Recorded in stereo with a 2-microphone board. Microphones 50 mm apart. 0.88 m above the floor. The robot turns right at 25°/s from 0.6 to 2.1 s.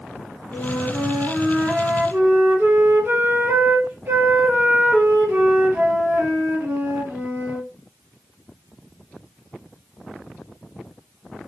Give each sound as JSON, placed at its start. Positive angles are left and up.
{"t": 0.5, "sound": "a flute", "azimuth_deg": -160, "distance_m": 3.0}